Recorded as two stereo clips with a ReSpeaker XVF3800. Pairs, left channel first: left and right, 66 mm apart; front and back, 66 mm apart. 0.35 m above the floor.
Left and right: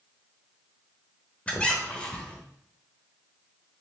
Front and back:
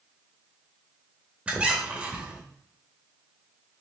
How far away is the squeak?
About 0.8 m.